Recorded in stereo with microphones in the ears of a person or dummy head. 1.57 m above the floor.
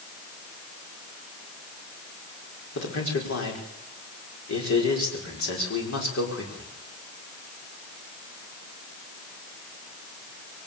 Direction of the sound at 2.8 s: 70° left (ahead or behind).